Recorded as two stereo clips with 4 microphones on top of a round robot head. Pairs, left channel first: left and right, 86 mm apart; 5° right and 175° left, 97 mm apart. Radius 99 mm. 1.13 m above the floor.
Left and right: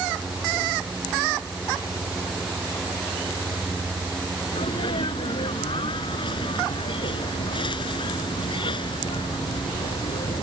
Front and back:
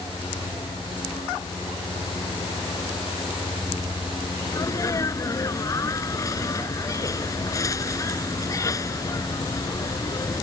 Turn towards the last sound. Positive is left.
turn(degrees=50)